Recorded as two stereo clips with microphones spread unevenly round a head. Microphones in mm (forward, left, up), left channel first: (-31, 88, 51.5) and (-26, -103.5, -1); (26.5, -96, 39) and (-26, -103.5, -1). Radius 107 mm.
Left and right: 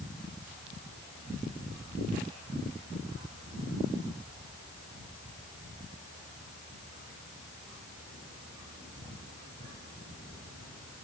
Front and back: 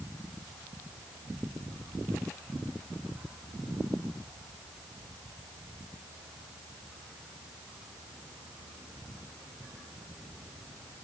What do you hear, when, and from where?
Only background noise.